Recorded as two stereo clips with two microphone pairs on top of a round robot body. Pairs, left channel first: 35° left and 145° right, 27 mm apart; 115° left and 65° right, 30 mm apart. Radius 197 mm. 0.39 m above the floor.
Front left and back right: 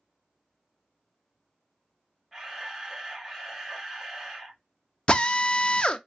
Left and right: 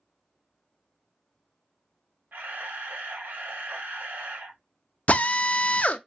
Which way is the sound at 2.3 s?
65° right.